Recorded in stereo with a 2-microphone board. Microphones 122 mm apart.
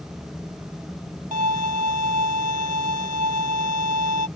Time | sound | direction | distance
1.3 | a violin | 80° right | ?